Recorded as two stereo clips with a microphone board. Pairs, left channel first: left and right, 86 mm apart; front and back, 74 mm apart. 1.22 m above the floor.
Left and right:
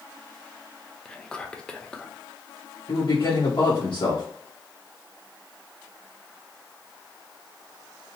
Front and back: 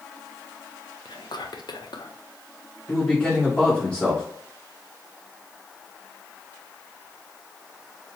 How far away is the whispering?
About 0.6 m.